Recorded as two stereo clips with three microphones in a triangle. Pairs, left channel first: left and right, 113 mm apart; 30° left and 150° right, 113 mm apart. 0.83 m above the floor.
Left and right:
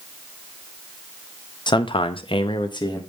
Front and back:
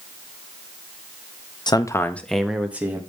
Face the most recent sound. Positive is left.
turn(degrees=140)